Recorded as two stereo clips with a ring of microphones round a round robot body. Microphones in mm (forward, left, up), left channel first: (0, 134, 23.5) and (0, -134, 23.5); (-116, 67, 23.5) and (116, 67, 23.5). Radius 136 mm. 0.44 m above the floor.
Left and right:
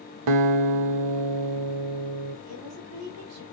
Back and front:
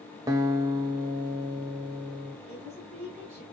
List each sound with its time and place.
0.3 s a guitar: 75° right, 0.8 m
2.5 s a woman speaking: 65° right, 2.5 m